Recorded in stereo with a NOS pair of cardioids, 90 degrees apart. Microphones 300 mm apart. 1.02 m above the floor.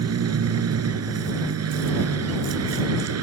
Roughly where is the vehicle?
Ahead right.